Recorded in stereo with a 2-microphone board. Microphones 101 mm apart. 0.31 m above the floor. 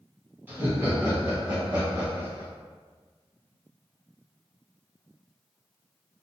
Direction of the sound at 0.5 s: 20° right (ahead or behind).